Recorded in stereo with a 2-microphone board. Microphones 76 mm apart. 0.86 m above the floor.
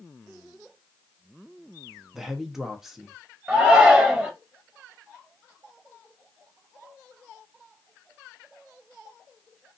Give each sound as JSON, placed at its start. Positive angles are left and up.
{"t": 2.1, "sound": "a man speaking", "side_deg": -5, "distance_m": 0.6}
{"t": 3.5, "sound": "a shout", "side_deg": -25, "distance_m": 0.6}